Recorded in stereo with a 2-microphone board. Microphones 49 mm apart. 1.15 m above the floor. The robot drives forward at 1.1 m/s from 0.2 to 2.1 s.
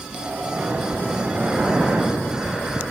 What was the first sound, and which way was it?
Breathing, 20° right (ahead or behind).